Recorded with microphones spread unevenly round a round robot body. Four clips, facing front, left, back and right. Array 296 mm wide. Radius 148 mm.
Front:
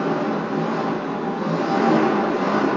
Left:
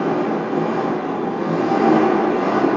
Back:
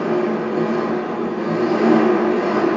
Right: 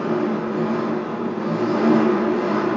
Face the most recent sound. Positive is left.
turn(degrees=100)